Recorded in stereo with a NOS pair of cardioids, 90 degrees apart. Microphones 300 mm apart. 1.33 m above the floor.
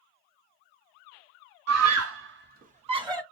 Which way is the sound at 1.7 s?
65° right.